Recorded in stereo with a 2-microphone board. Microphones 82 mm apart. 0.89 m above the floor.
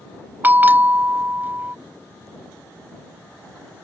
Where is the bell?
25° right (ahead or behind).